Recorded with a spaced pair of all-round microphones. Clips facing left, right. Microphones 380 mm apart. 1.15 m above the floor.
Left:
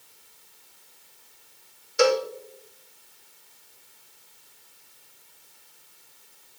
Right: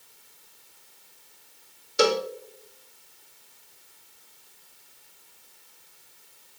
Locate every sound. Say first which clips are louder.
2.0 s a cowbell: left 2 dB; 50° right (ahead or behind), 0.6 m